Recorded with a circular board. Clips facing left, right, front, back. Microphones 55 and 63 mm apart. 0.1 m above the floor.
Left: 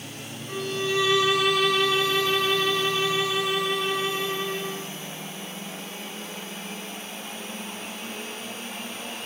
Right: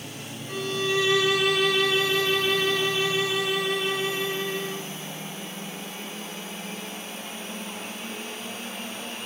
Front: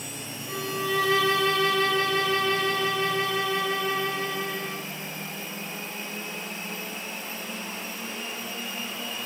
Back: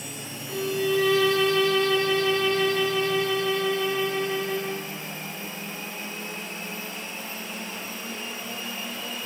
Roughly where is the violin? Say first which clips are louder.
Even, back 3 dB; ahead.